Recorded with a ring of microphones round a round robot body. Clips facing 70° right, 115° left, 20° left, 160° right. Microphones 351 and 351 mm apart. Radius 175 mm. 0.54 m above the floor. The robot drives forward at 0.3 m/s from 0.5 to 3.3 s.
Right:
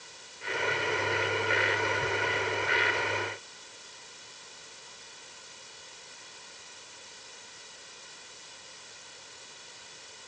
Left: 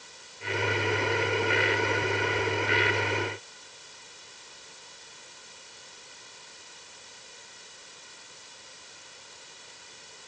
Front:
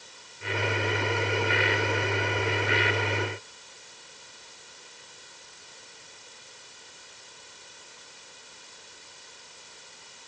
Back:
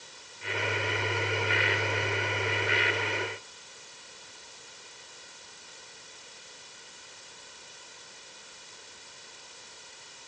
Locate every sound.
Only background noise.